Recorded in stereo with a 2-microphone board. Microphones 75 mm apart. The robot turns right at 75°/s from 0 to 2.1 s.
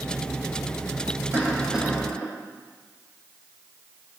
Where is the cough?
40° right, 6.5 m; by 2.3 s 20° left, 6.5 m.